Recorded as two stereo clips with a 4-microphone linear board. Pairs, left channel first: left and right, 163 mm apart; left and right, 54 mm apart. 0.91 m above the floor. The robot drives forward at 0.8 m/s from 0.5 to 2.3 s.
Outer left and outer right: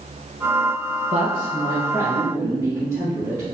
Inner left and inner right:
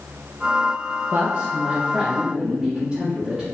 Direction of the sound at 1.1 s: 40° right (ahead or behind).